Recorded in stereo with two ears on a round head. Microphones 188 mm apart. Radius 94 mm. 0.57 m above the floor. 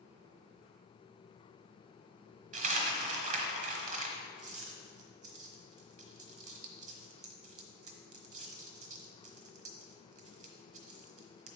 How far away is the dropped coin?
About 1.1 m.